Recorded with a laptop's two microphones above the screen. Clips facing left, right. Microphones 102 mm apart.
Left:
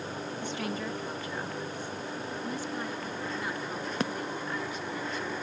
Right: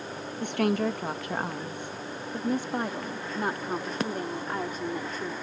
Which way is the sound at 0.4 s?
55° right (ahead or behind).